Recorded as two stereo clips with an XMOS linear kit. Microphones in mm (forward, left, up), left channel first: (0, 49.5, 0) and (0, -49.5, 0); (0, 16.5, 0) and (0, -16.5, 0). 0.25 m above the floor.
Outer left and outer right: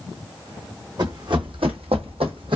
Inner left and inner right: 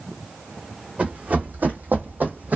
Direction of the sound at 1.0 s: 45° right (ahead or behind).